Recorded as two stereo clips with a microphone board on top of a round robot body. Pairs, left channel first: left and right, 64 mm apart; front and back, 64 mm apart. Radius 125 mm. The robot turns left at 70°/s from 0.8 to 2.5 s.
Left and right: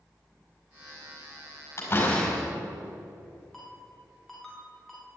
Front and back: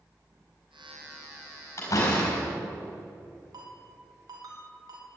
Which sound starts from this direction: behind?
A ringtone, at 3.5 s.